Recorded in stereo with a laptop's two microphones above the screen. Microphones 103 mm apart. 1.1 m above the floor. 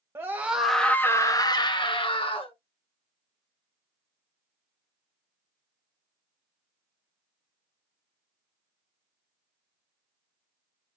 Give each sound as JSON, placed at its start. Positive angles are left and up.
{"t": 0.1, "sound": "a scream", "side_deg": -25, "distance_m": 0.6}